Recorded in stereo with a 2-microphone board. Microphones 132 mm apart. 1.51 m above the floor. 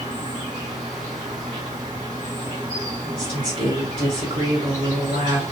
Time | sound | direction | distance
0.0 | an insect | 80° right | 3.5 m
3.0 | a woman speaking | 90° right | 3 m